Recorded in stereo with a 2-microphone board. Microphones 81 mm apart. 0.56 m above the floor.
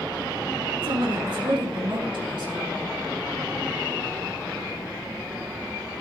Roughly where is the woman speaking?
Right.